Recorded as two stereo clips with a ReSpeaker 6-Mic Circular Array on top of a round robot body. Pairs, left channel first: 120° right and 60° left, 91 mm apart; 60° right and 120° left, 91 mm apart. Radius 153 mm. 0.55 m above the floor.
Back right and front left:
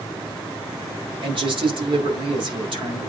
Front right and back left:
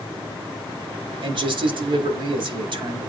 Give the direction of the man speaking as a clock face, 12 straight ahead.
9 o'clock.